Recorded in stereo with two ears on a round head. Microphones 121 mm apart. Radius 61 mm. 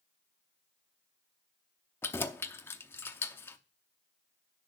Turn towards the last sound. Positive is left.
turn(degrees=15)  # may be behind; listen again after turning